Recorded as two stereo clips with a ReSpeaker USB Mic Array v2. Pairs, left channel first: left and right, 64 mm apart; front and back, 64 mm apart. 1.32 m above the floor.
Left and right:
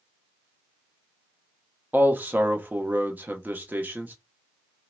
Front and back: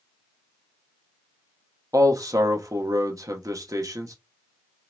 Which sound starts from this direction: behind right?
A man speaking, at 1.9 s.